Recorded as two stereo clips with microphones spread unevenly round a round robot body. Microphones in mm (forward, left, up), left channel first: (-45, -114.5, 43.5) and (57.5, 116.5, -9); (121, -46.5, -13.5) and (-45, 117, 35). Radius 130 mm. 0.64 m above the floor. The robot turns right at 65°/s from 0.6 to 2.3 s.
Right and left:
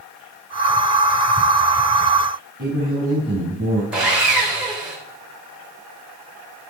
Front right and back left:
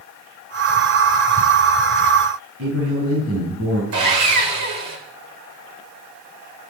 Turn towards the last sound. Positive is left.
turn(degrees=150)